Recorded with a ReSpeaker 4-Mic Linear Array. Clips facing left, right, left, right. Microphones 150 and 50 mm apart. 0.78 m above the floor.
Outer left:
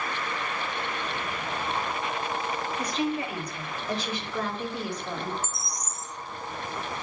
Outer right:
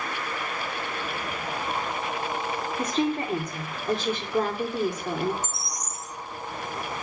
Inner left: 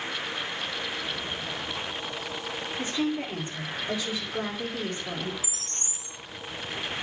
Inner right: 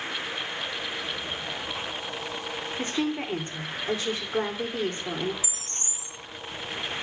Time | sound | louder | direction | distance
2.8 | a woman speaking | outer right 4 dB, even | 50° right (ahead or behind) | 2 m
5.4 | a bird | outer right 1 dB, inner right 1 dB | 10° right (ahead or behind) | 3.5 m